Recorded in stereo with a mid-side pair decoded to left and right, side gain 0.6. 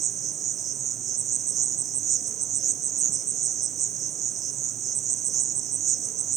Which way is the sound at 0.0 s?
45° right.